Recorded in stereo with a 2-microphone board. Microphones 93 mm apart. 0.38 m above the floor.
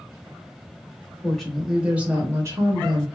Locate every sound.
1.2 s a woman speaking: 5° left (ahead or behind), 1.0 m; by 3.0 s 45° right (ahead or behind), 1.1 m